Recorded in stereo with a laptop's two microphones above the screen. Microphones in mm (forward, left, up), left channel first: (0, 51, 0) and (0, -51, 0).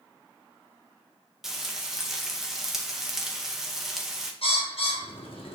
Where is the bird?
65° left (ahead or behind), 0.8 m.